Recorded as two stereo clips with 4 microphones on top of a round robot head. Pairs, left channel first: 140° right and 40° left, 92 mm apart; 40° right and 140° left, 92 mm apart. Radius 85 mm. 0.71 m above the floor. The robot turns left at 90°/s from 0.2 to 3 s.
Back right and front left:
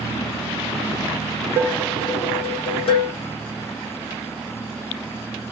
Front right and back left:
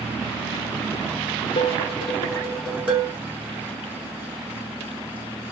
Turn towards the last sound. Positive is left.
turn(degrees=-155)